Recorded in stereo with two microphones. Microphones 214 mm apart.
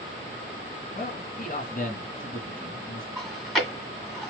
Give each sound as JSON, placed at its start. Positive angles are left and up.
{"t": 0.9, "sound": "a man speaking", "side_deg": 40, "distance_m": 1.9}
{"t": 3.2, "sound": "chewing", "side_deg": 0, "distance_m": 1.9}